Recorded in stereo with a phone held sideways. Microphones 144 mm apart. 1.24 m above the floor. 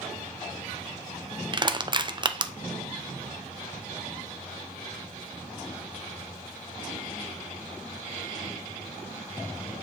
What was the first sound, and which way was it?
Crushing, 35° right (ahead or behind).